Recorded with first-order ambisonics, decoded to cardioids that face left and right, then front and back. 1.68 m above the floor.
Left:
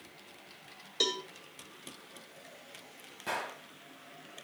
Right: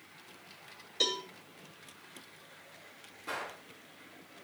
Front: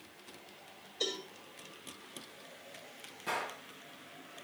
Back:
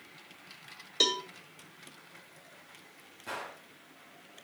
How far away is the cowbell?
About 1.9 m.